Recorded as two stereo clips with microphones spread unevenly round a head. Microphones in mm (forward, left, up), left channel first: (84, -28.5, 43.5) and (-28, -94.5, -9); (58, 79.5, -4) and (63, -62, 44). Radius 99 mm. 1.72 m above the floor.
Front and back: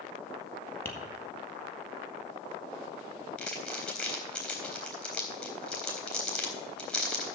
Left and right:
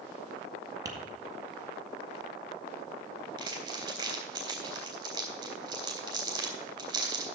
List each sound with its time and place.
0.8 s tapping: 35° right, 2.0 m
3.4 s crumpling: 40° right, 3.5 m